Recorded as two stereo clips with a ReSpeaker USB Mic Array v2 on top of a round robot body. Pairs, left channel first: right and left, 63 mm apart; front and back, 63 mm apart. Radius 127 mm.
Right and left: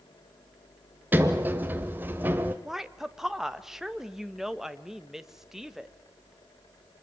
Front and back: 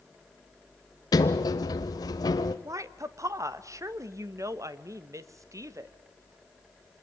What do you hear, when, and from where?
1.1 s a sliding door: 25° left, 0.7 m
2.6 s a woman speaking: 170° left, 1.5 m